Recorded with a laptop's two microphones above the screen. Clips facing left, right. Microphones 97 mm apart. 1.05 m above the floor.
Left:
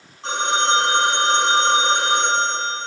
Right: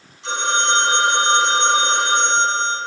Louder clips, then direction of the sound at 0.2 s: Left 1 dB; 45° left (ahead or behind).